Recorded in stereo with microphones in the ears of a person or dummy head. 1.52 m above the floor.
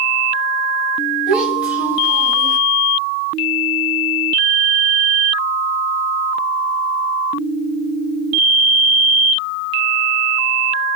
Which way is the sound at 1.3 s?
5° right (ahead or behind).